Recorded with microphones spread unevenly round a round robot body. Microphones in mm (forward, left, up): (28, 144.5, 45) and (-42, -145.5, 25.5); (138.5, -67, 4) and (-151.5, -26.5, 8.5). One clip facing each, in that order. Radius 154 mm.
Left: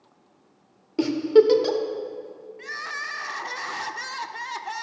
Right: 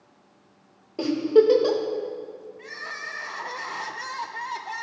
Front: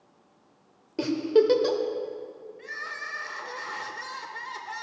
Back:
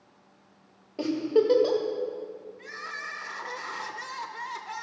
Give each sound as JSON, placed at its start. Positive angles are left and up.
{"t": 1.0, "sound": "a giggle", "azimuth_deg": 35, "distance_m": 0.9}
{"t": 2.6, "sound": "crying", "azimuth_deg": 85, "distance_m": 0.6}